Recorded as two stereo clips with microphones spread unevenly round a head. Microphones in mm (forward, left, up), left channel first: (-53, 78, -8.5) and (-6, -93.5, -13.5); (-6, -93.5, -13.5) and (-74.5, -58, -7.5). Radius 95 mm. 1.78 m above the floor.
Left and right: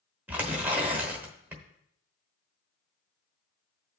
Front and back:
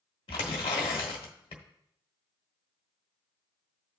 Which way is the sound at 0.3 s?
5° left.